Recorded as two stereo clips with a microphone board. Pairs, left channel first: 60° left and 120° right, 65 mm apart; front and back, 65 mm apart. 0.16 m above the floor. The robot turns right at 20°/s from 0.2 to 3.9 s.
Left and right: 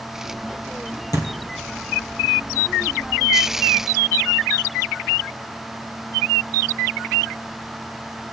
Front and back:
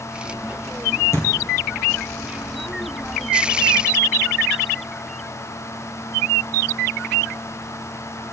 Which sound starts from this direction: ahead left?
A thud, at 1.1 s.